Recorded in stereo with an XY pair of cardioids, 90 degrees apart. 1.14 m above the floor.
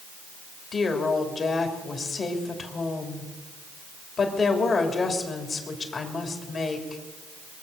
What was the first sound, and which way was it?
A woman speaking, 50° left.